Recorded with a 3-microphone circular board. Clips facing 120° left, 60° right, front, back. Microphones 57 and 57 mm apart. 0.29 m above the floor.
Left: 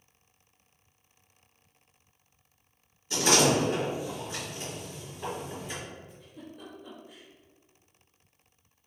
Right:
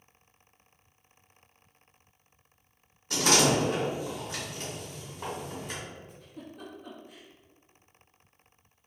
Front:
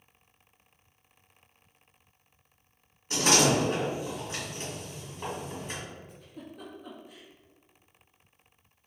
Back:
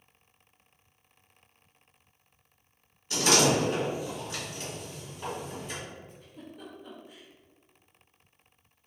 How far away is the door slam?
About 1.6 m.